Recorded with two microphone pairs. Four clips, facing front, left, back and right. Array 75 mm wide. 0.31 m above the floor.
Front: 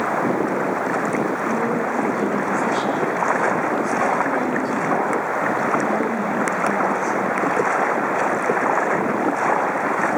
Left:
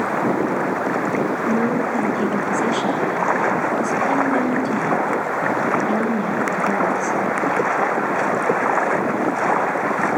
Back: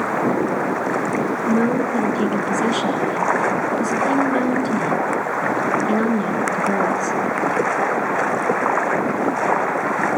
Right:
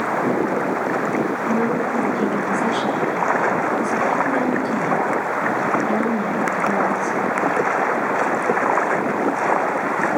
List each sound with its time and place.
1.5 s a woman speaking: 175° left, 4 m